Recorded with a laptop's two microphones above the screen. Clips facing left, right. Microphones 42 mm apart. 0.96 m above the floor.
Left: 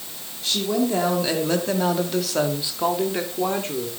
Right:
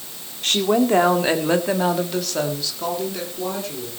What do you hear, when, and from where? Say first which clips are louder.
0.4 s a woman speaking: right 4 dB; 55° right (ahead or behind), 2.5 m; by 3.9 s 45° left (ahead or behind), 3 m